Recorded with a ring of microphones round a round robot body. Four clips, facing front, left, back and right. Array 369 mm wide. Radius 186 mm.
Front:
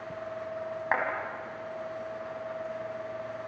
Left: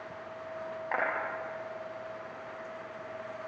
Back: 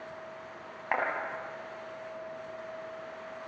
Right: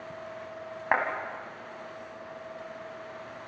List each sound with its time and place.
0.9 s a clap: 75° right, 5.5 m